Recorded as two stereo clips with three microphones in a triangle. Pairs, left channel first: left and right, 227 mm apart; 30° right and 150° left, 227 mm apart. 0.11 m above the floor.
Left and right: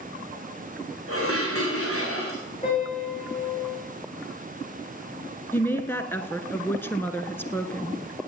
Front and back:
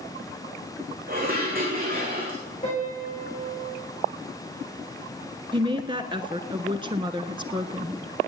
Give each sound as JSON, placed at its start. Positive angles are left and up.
{"t": 1.1, "sound": "dishes clattering", "azimuth_deg": 100, "distance_m": 5.0}
{"t": 2.6, "sound": "a piano", "azimuth_deg": 30, "distance_m": 7.5}
{"t": 5.5, "sound": "a woman speaking", "azimuth_deg": 150, "distance_m": 1.1}